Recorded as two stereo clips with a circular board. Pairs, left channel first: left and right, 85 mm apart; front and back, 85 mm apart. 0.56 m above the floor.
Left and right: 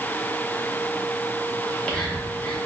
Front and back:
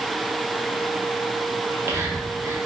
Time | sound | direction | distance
1.6 | whispering | 155° left | 0.7 m